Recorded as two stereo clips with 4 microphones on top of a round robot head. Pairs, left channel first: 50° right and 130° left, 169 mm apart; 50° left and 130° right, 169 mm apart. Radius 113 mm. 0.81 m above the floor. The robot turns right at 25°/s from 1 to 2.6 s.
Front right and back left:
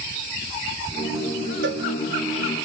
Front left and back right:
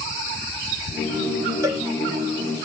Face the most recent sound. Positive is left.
turn(degrees=180)